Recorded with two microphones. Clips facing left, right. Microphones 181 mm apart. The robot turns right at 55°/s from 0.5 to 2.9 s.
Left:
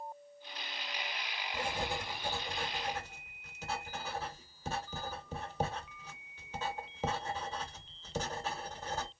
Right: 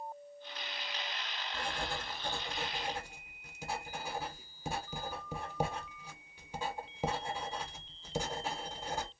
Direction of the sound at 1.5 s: 25° left (ahead or behind).